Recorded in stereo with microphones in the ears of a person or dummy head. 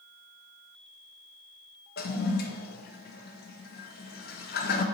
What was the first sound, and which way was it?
A toilet flushing, 50° left (ahead or behind).